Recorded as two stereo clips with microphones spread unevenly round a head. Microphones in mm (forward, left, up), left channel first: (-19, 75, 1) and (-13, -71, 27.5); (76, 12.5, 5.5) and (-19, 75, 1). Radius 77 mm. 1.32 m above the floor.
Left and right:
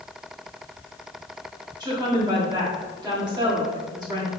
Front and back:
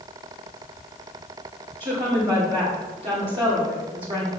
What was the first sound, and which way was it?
A woman speaking, 150° right.